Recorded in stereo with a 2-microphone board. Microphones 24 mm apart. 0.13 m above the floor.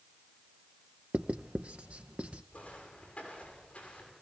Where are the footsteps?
55° left (ahead or behind), 8.5 m.